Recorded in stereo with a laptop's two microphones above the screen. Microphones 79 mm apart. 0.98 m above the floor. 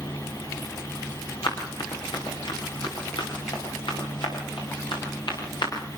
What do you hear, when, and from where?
0.0 s a fan: 50° left (ahead or behind), 6 m
1.4 s running footsteps: 75° left (ahead or behind), 6.5 m; by 5.7 s 80° left, 10 m